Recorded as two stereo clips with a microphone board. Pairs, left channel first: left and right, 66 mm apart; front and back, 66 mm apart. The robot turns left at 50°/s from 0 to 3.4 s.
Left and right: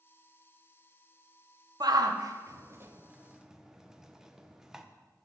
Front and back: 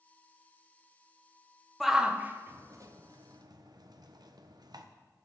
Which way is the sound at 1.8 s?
90° right.